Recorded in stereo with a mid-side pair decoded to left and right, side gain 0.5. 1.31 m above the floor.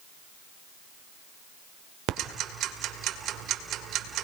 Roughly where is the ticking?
Ahead right.